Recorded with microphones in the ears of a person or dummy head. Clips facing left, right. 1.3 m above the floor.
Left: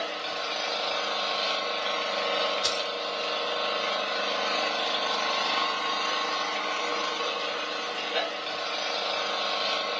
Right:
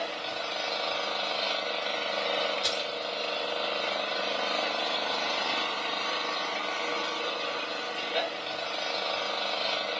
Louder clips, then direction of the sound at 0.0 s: Left 1 dB; centre (ahead or behind).